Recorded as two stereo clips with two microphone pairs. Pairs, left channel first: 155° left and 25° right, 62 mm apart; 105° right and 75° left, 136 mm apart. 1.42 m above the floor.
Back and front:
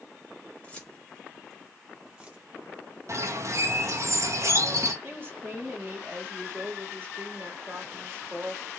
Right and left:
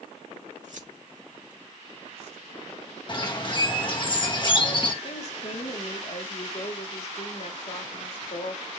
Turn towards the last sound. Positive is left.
turn(degrees=-80)